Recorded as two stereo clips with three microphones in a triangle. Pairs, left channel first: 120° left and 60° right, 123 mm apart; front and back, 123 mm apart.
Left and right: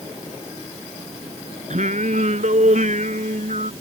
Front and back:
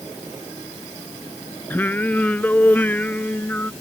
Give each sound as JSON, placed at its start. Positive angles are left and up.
{"t": 1.7, "sound": "singing", "azimuth_deg": -75}